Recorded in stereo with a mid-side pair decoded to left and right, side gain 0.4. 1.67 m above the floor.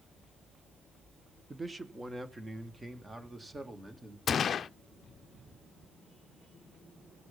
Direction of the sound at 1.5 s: 25° right.